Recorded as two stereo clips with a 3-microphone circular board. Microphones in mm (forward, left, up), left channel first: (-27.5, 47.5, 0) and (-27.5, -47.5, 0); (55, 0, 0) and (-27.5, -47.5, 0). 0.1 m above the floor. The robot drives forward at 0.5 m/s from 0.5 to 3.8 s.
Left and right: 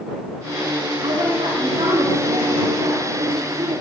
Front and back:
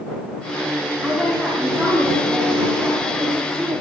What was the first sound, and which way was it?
A woman speaking, 55° right.